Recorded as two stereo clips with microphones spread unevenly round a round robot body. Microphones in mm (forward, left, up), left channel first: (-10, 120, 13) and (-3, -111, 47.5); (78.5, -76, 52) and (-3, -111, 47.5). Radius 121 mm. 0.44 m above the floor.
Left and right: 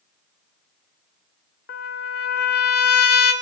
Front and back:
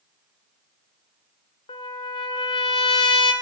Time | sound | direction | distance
1.7 | a trumpet | 40° left | 1.2 m